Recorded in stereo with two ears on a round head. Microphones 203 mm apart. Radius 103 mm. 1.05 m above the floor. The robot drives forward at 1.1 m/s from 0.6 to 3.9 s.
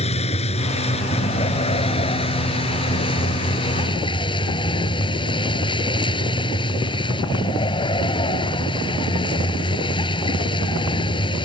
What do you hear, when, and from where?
0.0 s a vehicle: 30° left (ahead or behind); by 11.5 s 25° left (ahead or behind)